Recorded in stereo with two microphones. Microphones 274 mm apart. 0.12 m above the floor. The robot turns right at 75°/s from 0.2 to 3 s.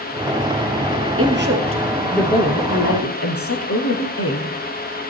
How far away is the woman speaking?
About 2.5 m.